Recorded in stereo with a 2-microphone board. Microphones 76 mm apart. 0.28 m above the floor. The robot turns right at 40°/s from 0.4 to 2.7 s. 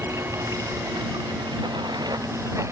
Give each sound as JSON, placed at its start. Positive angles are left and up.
{"t": 0.0, "sound": "running water", "azimuth_deg": -130}